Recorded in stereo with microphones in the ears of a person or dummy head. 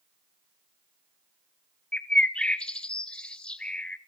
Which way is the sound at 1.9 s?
5° left (ahead or behind).